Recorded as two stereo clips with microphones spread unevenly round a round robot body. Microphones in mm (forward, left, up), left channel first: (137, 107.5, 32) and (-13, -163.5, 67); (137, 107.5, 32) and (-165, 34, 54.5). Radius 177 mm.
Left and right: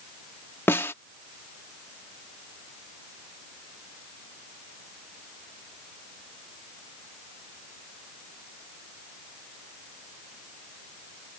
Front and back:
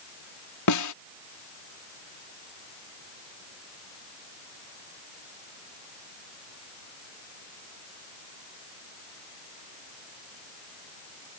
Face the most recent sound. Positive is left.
turn(degrees=-20)